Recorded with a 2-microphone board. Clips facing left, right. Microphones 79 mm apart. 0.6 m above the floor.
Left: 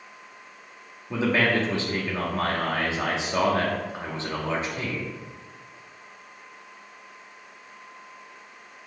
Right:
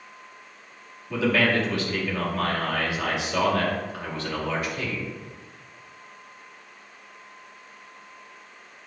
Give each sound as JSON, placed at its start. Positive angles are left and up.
{"t": 1.1, "sound": "a man speaking", "side_deg": 25, "distance_m": 0.9}